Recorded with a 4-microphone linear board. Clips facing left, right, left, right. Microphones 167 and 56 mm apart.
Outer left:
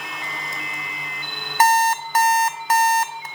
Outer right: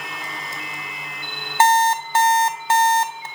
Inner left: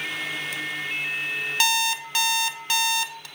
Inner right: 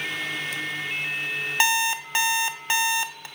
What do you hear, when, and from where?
1.6 s an alarm clock: 30° right (ahead or behind), 0.6 m